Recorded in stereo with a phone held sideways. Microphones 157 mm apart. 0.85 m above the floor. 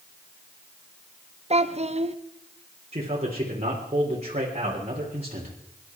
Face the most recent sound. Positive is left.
turn(degrees=-45)  # may be behind; listen again after turning